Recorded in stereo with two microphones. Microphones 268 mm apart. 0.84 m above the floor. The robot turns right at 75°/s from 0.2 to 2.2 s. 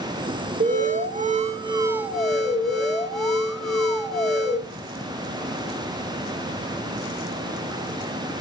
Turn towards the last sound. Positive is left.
turn(degrees=0)